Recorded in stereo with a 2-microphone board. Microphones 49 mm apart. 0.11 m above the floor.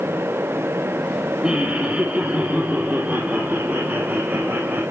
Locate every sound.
1.4 s laughter: 20° right (ahead or behind), 2.5 m; by 4.8 s 35° right (ahead or behind), 4.5 m